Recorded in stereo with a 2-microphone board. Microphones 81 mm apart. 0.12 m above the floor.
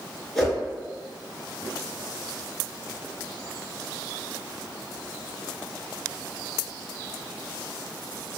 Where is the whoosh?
5° left (ahead or behind), 1.1 m.